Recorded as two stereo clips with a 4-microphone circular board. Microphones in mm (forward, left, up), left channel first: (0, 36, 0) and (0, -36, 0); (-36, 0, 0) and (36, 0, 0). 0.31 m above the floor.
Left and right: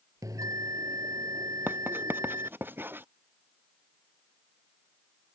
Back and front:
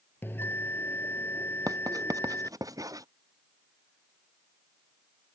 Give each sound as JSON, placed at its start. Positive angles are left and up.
{"t": 0.2, "sound": "a bell", "azimuth_deg": -120}
{"t": 1.7, "sound": "writing", "azimuth_deg": -30}